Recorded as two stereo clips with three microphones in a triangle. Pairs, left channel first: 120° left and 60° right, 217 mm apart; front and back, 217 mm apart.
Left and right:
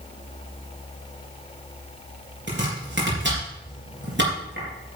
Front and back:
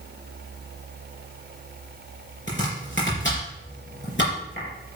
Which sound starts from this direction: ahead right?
Chopping, at 2.5 s.